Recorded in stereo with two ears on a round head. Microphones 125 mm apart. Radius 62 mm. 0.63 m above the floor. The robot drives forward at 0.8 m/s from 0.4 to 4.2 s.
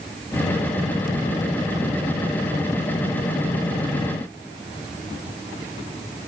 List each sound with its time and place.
Only background noise.